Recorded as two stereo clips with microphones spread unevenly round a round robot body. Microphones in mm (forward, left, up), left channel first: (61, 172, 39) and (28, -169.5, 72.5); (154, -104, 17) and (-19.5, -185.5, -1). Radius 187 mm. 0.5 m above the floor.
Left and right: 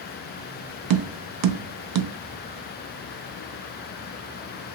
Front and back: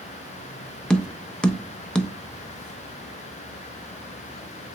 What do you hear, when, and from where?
0.9 s tapping: 65° right, 0.5 m